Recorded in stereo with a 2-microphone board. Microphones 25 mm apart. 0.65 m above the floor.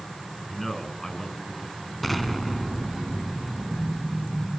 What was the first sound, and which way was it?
A man speaking, 15° left (ahead or behind).